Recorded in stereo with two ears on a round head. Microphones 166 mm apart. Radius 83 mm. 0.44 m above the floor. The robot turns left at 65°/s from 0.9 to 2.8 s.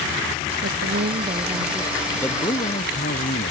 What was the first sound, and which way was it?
A woman speaking, 120° right.